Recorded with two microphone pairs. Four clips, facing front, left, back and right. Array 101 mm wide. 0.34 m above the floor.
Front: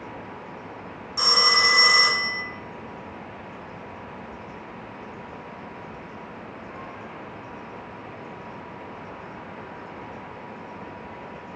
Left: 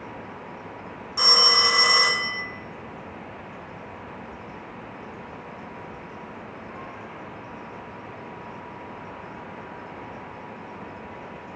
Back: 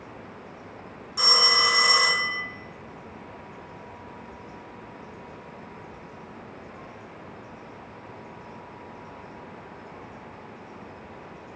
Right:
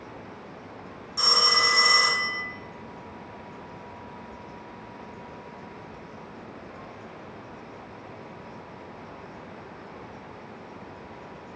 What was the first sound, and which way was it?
A phone ringing, 75° left.